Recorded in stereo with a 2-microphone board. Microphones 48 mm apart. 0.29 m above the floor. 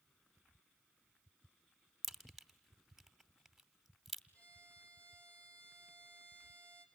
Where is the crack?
Centre (ahead or behind), 0.8 m.